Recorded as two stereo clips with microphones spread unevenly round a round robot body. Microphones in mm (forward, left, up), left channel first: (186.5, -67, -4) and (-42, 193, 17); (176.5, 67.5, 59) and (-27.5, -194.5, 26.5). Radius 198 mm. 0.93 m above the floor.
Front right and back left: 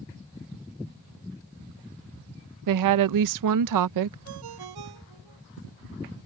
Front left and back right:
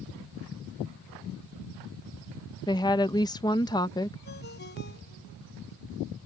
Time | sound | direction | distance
2.7 | a woman speaking | 135° left | ?
4.2 | a ringtone | 120° left | ?